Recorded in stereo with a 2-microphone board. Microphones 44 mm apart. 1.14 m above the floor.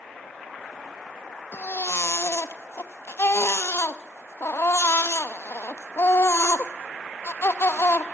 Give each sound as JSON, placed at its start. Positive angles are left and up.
{"t": 1.5, "sound": "a baby crying", "side_deg": 60, "distance_m": 0.8}